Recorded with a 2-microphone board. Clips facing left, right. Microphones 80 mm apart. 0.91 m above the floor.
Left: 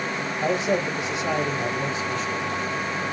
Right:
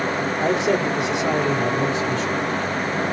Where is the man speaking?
75° right (ahead or behind), 2.5 m.